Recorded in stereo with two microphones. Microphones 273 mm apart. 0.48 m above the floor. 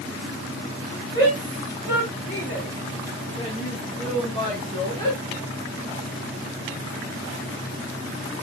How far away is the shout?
About 4 m.